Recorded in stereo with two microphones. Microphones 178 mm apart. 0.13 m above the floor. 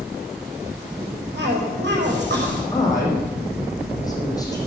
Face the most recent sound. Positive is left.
turn(degrees=20)  # may be behind; listen again after turning